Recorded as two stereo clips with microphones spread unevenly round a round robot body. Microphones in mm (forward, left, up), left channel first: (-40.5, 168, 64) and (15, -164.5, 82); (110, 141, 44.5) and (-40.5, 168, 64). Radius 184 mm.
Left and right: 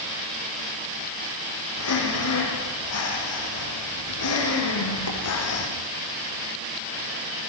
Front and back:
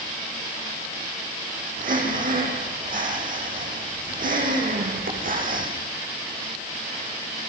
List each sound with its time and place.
1.8 s breathing: 145° left, 6.5 m